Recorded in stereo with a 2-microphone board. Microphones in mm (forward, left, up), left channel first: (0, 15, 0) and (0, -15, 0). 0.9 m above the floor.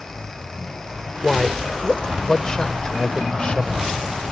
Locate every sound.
1.2 s a man speaking: 10° left (ahead or behind); by 4.2 s 45° left (ahead or behind)